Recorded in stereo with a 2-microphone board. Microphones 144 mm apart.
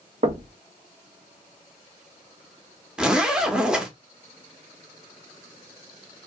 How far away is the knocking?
About 0.6 m.